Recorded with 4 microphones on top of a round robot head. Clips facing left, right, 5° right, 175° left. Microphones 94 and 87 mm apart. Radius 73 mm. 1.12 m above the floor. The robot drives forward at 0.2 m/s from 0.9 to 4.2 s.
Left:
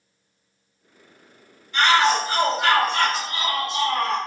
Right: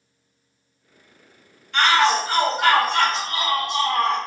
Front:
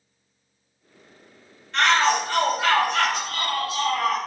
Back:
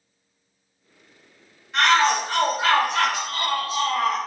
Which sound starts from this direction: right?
A shout, at 1.7 s.